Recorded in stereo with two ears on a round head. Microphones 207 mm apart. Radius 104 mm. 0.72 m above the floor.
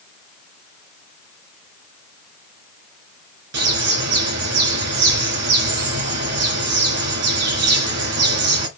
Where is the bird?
70° right (ahead or behind), 3 m.